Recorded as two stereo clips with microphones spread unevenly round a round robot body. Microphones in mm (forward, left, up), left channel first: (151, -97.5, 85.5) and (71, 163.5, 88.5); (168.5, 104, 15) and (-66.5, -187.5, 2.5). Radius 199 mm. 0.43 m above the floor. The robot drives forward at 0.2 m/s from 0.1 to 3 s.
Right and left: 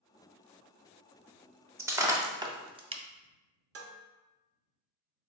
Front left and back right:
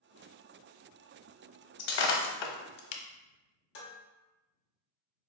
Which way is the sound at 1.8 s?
25° left.